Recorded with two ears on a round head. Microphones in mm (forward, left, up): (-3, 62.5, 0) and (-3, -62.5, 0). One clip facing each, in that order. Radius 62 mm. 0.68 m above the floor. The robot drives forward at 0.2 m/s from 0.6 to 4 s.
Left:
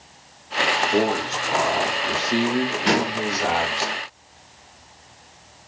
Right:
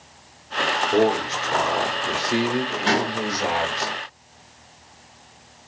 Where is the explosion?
Centre (ahead or behind), 5 m.